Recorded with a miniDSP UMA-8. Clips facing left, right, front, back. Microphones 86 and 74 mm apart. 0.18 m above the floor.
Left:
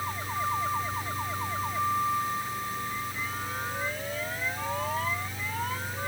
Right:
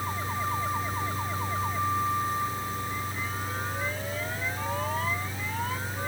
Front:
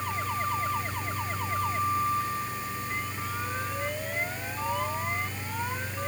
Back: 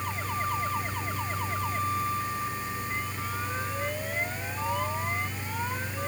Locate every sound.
Only background noise.